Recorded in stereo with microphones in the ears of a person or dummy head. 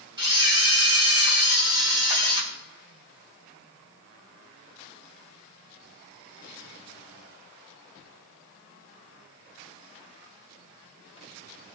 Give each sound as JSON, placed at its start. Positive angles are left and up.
{"t": 0.2, "sound": "a camera shutter", "side_deg": -20, "distance_m": 3.0}